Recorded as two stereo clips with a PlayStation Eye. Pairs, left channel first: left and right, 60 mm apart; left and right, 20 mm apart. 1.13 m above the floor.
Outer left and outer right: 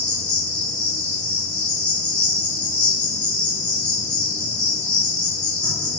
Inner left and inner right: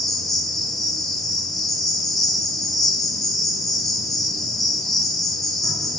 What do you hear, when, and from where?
0.0 s an insect: 15° left (ahead or behind), 0.9 m